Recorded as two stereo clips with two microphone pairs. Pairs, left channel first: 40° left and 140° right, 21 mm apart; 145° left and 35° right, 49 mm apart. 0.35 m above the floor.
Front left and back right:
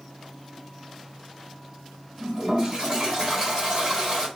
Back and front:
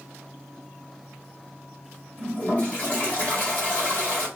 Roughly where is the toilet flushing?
Behind.